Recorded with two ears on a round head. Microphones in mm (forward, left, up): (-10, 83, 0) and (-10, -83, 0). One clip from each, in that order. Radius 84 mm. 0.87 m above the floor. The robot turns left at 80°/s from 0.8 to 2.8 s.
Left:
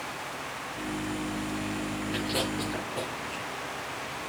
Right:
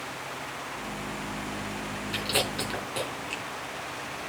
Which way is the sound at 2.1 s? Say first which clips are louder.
Right 3 dB; 30° right (ahead or behind).